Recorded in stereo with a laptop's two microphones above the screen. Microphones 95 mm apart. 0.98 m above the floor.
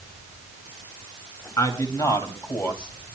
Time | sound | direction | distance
1.6 | a man speaking | 40° left (ahead or behind) | 4.5 m